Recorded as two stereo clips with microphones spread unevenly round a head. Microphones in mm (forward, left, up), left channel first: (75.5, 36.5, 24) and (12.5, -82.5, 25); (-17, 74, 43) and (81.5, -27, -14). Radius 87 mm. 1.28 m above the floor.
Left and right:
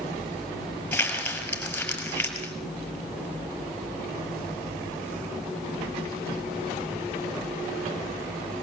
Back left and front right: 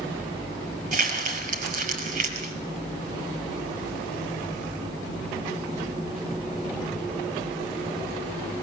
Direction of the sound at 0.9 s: 15° right.